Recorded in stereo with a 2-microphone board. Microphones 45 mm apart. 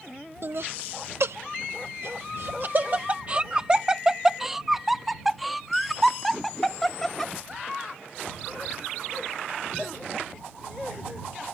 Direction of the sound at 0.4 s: 65° right (ahead or behind).